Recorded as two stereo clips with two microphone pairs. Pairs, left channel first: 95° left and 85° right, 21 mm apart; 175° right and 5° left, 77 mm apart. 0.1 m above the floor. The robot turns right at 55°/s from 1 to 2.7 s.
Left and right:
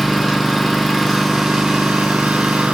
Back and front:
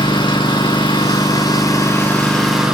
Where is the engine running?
165° right, 4.5 m; by 2.8 s 75° right, 4.5 m.